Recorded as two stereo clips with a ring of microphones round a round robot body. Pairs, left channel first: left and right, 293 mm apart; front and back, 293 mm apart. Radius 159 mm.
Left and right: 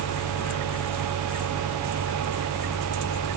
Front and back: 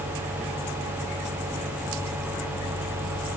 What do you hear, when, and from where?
Only background noise.